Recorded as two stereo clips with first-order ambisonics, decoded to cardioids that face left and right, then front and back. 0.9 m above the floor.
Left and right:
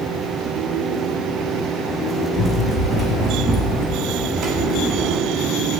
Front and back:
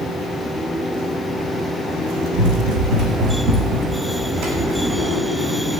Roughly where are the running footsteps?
Behind.